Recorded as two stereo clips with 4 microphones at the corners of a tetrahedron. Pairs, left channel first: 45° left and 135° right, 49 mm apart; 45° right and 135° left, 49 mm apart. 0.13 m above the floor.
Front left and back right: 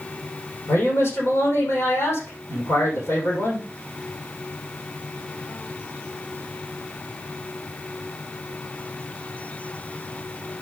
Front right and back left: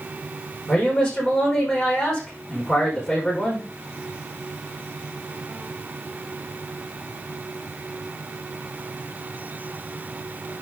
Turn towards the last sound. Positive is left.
turn(degrees=30)